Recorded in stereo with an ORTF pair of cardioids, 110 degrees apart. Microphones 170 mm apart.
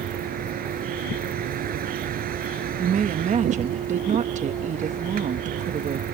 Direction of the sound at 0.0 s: 60° right.